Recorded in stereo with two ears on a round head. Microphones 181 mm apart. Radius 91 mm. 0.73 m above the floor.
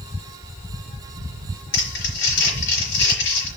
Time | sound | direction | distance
1.7 | crumpling | 65° left (ahead or behind) | 5 m